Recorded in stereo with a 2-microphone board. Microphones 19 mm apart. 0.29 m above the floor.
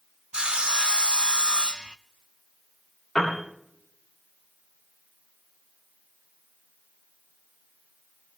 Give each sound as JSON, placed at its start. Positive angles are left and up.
{"t": 0.3, "sound": "sawing", "side_deg": -60, "distance_m": 0.5}
{"t": 3.1, "sound": "a piano", "side_deg": 55, "distance_m": 9.5}